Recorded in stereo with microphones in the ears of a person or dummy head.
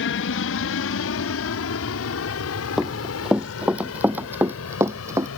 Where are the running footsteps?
Centre (ahead or behind); by 5.3 s 20° right (ahead or behind).